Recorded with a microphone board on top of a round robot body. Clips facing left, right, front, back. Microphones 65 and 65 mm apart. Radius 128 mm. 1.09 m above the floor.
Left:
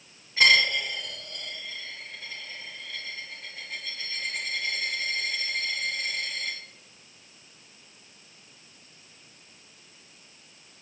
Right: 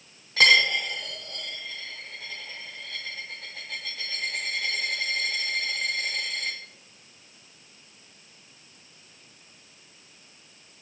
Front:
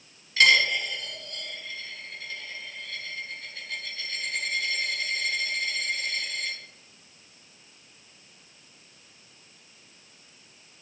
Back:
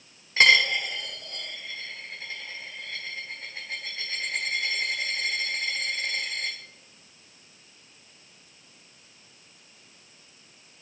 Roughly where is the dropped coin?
Behind right.